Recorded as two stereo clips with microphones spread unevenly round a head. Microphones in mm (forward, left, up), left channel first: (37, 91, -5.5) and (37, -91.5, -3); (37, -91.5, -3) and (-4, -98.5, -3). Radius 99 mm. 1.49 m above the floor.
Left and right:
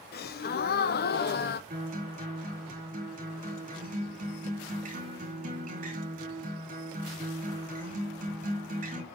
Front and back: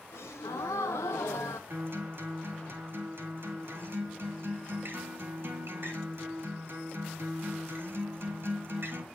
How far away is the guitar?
About 4 m.